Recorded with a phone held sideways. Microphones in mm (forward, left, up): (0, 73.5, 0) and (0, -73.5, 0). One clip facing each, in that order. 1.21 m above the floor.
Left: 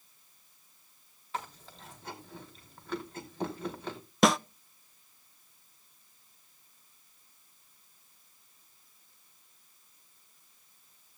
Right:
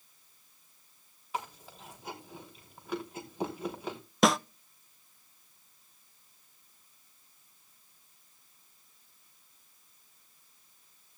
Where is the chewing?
10° right (ahead or behind), 3.5 m.